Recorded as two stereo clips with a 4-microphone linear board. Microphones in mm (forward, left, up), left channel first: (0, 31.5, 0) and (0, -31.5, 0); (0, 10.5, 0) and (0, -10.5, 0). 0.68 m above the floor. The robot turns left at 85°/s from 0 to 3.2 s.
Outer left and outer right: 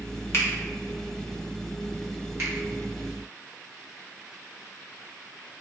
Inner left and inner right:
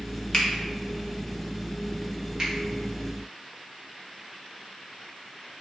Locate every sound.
0.3 s a finger snap: 45° left (ahead or behind), 1.0 m
2.4 s a finger snap: 40° right (ahead or behind), 1.7 m; by 2.5 s 50° right (ahead or behind), 1.7 m